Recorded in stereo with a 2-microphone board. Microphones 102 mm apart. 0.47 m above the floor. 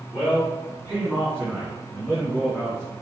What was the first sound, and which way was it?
A man speaking, 30° left (ahead or behind).